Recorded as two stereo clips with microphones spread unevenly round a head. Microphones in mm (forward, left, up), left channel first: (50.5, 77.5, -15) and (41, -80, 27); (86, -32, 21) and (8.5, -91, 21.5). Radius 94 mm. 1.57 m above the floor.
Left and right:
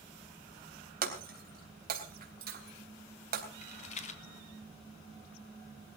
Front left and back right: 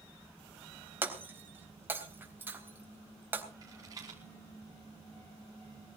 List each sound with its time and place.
1.0 s breaking glass: 75° right, 3.5 m
3.6 s a rattle: 145° left, 1.3 m